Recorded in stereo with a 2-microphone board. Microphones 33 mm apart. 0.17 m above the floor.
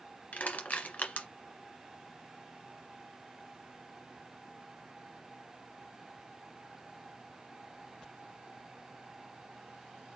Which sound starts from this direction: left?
Crushing, at 0.3 s.